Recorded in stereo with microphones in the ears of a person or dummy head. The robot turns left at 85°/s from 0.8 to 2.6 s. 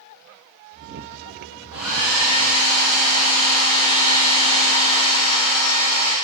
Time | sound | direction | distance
1.7 | a hair dryer | 165° right | 0.9 m